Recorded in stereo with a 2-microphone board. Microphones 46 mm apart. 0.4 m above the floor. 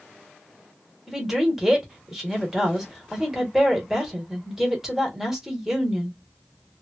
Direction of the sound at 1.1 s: 10° right (ahead or behind).